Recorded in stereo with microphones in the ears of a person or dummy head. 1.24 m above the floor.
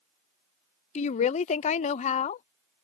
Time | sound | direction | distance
0.9 | a woman speaking | 40° left (ahead or behind) | ?